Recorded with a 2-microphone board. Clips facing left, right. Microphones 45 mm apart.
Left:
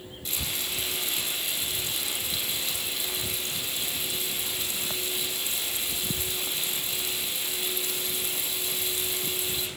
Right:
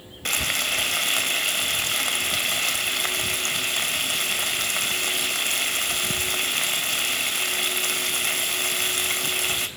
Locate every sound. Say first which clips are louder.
0.2 s frying: right 9 dB; 65° right (ahead or behind), 3 m